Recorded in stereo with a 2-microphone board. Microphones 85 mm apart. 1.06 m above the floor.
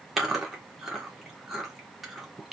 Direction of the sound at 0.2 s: 5° right (ahead or behind).